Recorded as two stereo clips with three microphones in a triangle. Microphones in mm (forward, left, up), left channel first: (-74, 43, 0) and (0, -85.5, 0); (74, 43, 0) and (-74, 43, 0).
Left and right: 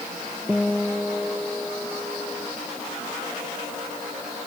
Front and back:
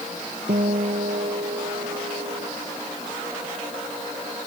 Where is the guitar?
155° right.